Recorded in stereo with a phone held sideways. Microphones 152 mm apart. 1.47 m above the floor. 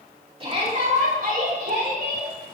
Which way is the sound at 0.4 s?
35° right (ahead or behind).